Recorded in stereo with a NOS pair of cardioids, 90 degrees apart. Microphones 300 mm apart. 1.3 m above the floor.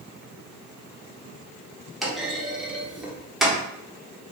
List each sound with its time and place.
2.0 s a clunk: straight ahead, 1.3 m